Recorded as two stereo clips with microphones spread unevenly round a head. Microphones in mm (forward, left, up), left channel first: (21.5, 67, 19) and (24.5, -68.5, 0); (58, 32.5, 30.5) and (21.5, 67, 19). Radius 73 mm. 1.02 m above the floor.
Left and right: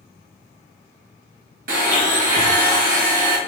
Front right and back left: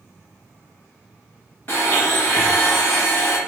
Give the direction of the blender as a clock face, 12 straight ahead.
4 o'clock.